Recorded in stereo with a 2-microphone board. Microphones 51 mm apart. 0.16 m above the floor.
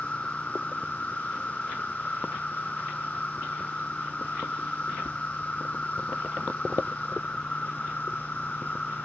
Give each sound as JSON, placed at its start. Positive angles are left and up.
{"t": 0.0, "sound": "an insect", "side_deg": 25}